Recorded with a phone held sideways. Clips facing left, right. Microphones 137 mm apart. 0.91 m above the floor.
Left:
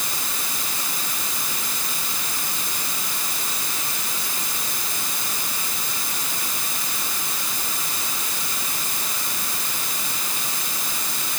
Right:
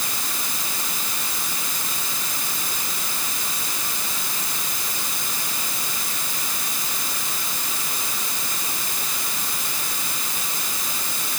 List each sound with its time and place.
Only background noise.